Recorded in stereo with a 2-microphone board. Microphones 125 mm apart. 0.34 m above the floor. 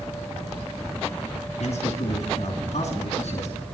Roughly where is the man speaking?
Left.